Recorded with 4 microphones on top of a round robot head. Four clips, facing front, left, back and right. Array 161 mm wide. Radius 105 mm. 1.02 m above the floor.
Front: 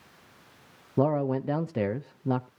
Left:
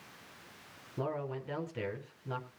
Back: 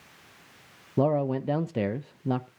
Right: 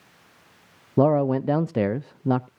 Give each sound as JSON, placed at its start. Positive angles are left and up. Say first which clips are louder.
{"t": 1.0, "sound": "a man speaking", "louder": "right 18 dB, back 1 dB", "azimuth_deg": -95, "distance_m": 0.5}